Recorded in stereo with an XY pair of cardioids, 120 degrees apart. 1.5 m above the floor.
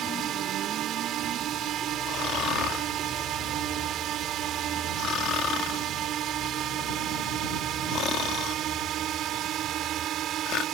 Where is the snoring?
65° left.